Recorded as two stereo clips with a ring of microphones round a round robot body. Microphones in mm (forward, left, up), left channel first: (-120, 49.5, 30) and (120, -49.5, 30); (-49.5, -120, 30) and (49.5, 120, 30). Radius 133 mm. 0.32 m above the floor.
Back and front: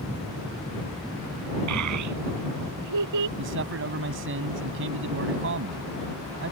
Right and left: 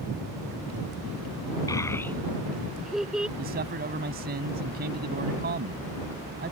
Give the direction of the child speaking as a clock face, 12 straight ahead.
1 o'clock.